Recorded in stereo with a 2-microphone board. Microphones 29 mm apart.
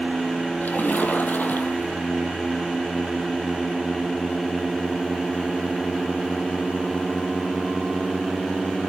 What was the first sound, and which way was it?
A splash, 85° left.